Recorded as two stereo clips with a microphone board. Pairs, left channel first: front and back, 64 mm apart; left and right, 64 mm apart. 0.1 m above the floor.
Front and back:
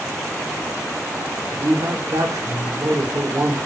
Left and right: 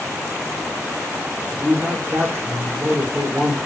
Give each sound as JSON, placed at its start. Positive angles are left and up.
{"t": 1.5, "sound": "a man speaking", "azimuth_deg": -150, "distance_m": 4.0}